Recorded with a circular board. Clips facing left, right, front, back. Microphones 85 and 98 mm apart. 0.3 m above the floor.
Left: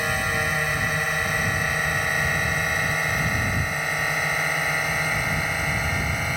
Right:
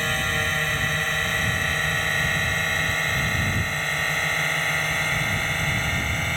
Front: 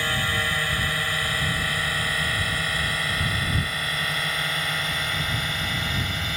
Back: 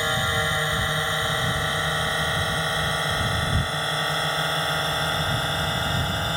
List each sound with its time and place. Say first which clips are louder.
0.0 s a drone: left 1 dB, back 2 dB; 155° left; by 6.4 s 165° left